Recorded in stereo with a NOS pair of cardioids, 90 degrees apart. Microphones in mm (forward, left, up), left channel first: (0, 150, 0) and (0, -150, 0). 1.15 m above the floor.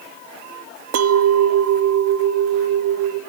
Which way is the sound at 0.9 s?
60° right.